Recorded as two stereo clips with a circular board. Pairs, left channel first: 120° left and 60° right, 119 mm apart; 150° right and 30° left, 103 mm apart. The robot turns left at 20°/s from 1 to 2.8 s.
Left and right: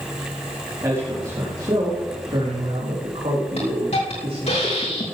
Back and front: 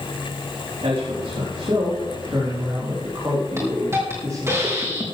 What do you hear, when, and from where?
0.8 s a man speaking: 5° left, 5 m; by 4.6 s 30° right, 5 m
3.6 s a hiss: 95° left, 4.5 m